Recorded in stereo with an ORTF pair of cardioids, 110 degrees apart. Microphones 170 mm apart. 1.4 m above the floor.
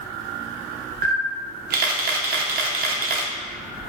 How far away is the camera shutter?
About 0.7 m.